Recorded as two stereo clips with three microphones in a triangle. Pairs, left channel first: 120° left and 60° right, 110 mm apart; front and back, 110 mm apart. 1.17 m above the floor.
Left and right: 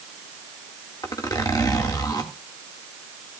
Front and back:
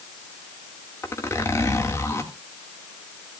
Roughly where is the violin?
I don't hear a violin.